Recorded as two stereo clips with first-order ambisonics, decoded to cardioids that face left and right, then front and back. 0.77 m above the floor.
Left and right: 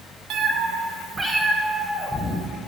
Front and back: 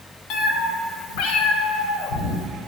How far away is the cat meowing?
About 0.7 m.